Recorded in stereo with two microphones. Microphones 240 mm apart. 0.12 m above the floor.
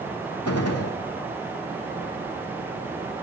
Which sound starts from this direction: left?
A gunshot, at 0.5 s.